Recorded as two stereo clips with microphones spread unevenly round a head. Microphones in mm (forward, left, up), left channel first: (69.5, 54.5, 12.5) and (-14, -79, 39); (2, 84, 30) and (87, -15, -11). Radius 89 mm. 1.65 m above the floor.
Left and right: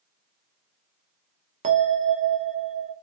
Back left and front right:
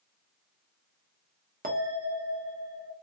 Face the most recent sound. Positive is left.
turn(degrees=-95)